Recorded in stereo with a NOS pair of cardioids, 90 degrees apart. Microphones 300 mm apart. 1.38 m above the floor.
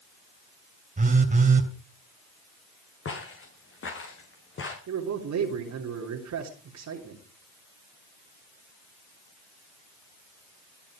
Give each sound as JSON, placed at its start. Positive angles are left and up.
{"t": 1.0, "sound": "a phone buzzing", "azimuth_deg": -25, "distance_m": 3.0}
{"t": 3.0, "sound": "footsteps", "azimuth_deg": 45, "distance_m": 5.5}
{"t": 4.9, "sound": "a man speaking", "azimuth_deg": -65, "distance_m": 3.0}